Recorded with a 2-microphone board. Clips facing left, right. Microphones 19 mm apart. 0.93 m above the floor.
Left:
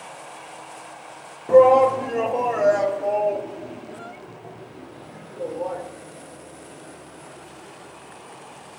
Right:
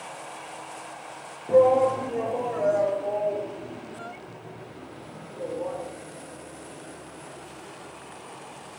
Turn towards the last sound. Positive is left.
turn(degrees=70)  # may be behind; listen again after turning